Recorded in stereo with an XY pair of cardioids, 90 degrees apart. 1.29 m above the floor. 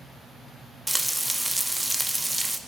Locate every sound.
0.9 s frying: 5° right, 1.5 m